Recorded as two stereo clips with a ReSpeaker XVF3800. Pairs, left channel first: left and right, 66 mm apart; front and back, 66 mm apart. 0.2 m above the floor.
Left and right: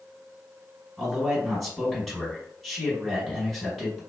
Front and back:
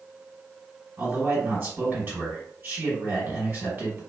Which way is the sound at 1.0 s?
175° left.